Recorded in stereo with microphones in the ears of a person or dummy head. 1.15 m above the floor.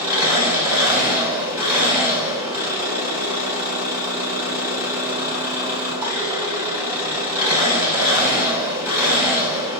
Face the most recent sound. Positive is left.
turn(degrees=-15)  # may be behind; listen again after turning